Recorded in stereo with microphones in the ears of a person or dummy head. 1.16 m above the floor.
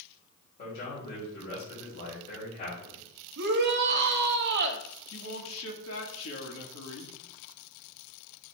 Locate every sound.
0.6 s a man speaking: 50° left (ahead or behind), 4.5 m
3.4 s a shout: 60° right (ahead or behind), 1.5 m
5.1 s a man speaking: 80° left, 2 m